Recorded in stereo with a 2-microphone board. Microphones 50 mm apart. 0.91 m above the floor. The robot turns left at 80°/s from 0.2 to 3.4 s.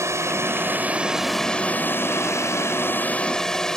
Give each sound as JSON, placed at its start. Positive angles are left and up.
{"t": 0.0, "sound": "a drone", "azimuth_deg": -90}